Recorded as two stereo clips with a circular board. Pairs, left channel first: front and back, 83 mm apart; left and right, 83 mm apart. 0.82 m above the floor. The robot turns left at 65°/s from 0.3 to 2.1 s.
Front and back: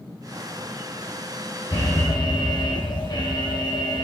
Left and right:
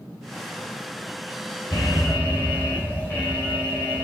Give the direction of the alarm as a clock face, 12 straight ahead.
10 o'clock.